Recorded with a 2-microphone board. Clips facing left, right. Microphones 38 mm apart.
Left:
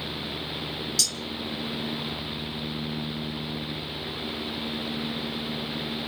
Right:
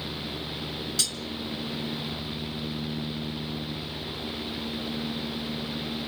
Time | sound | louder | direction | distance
1.0 | cutlery clinking | left 2 dB | 30° right (ahead or behind) | 0.9 m